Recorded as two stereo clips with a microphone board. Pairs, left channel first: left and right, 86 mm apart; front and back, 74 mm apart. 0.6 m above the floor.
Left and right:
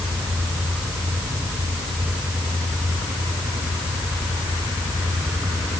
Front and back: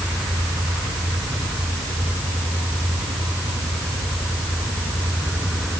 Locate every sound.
Only background noise.